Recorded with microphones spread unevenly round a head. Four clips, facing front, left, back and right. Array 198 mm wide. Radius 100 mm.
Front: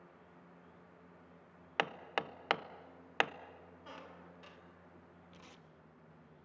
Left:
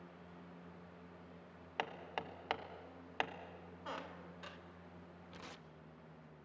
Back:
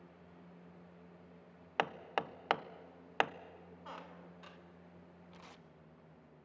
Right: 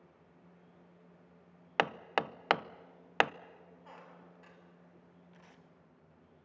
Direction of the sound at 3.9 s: 85° left.